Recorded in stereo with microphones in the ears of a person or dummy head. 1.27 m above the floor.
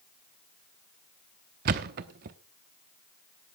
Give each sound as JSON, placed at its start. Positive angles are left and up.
{"t": 1.6, "sound": "a thud", "side_deg": -40, "distance_m": 0.9}